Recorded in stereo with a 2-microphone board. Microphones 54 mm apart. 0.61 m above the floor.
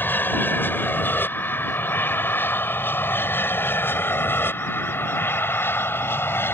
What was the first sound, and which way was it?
An aircraft, 35° left (ahead or behind).